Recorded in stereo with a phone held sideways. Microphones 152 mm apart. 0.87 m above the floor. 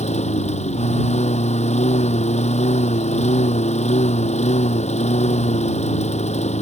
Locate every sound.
0.0 s a lawn mower: 45° left (ahead or behind)